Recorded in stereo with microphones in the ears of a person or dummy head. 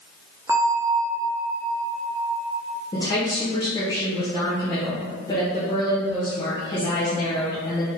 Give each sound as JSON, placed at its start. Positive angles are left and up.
{"t": 0.5, "sound": "a bell", "side_deg": -10, "distance_m": 0.5}
{"t": 2.9, "sound": "a woman speaking", "side_deg": 20, "distance_m": 0.8}